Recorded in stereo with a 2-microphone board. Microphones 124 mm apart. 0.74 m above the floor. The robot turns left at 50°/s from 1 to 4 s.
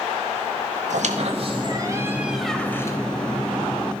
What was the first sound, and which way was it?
A squeak, 110° right.